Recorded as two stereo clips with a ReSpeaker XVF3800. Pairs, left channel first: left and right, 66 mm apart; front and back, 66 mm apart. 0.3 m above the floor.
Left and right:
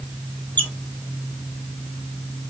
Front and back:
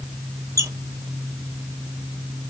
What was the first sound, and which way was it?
A squeak, 150° left.